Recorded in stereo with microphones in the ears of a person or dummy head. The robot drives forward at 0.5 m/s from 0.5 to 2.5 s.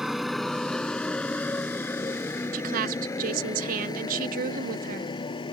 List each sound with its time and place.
0.0 s a motorcycle: 5° right (ahead or behind); by 5.5 s 25° left (ahead or behind)
2.5 s a woman speaking: 45° right (ahead or behind)